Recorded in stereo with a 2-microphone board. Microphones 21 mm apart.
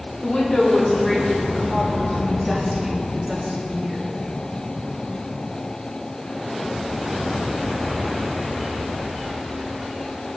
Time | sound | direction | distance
0.2 | a woman speaking | 30° left (ahead or behind) | 2 m